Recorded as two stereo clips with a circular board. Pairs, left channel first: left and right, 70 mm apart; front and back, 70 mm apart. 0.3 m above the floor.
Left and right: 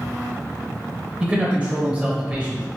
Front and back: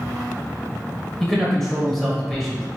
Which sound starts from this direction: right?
A man speaking, at 1.2 s.